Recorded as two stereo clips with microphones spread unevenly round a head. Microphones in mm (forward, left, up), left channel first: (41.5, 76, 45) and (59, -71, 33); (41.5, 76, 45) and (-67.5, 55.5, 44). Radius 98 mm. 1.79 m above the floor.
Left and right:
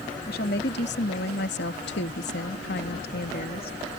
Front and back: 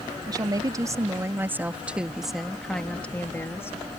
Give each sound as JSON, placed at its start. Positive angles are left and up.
{"t": 0.3, "sound": "a woman speaking", "azimuth_deg": 140}